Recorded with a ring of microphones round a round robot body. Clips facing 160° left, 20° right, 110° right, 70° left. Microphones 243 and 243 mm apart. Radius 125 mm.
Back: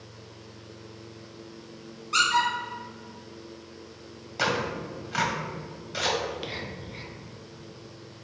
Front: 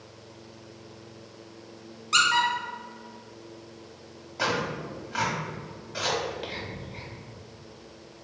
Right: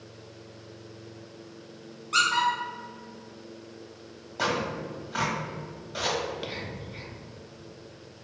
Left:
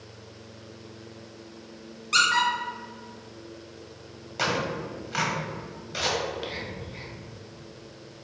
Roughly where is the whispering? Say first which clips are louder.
Even, left 1 dB; behind.